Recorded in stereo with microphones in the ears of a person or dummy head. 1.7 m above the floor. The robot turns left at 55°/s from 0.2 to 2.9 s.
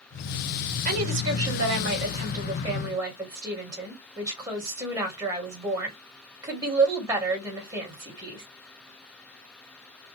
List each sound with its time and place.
0.8 s a woman speaking: 50° right, 2 m; by 8.4 s 165° right, 2 m